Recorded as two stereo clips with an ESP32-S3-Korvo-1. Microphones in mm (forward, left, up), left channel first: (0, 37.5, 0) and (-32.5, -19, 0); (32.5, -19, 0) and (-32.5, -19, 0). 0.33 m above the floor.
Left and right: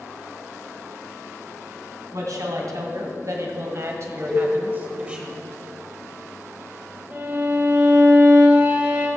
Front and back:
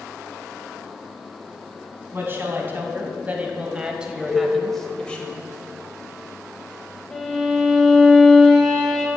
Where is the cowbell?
140° left, 3 m.